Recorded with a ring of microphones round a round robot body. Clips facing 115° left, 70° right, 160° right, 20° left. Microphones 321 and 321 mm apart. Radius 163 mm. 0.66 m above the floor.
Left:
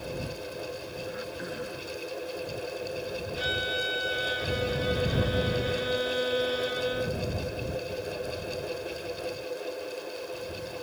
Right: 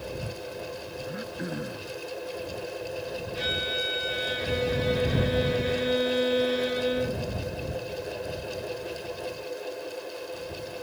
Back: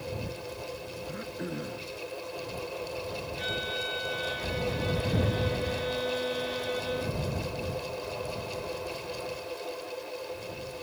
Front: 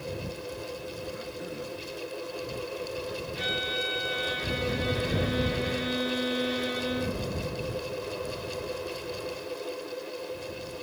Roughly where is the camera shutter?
No camera shutter in this recording.